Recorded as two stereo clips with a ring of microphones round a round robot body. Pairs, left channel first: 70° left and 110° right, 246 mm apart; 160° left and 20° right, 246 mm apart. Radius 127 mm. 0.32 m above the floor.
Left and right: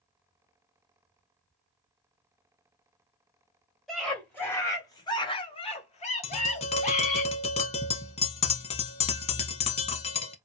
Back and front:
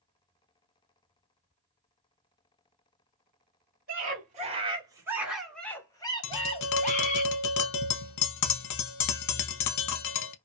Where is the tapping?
135° left, 0.5 m.